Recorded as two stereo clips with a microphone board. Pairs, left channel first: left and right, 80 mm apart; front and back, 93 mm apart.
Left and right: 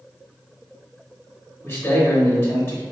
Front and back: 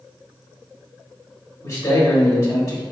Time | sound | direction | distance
1.6 | a man speaking | 40° left | 1.4 m